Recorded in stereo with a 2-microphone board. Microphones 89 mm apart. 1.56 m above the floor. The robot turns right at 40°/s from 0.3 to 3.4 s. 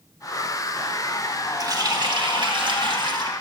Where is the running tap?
130° right, 1.3 m; by 3.3 s 65° right, 1.3 m.